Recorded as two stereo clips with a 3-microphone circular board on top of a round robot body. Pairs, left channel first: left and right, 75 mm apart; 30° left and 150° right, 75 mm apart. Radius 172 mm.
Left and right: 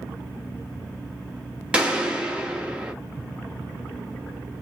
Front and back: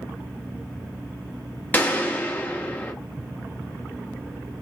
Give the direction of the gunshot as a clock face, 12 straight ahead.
1 o'clock.